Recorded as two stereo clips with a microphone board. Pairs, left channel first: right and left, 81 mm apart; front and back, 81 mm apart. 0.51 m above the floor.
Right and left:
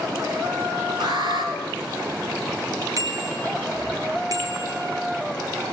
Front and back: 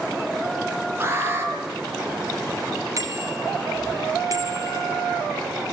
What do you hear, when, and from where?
1.0 s an alarm: 115° left, 6 m
3.0 s a bicycle bell: 135° left, 6 m